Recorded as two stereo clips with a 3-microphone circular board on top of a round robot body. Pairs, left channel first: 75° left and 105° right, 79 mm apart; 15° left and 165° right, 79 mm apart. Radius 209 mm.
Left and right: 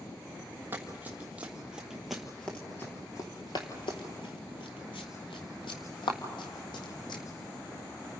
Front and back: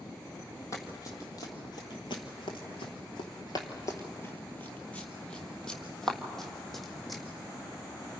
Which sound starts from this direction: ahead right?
Running footsteps, at 0.7 s.